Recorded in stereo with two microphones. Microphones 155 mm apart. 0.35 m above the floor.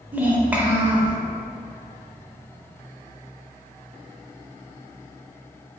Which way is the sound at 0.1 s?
10° right (ahead or behind).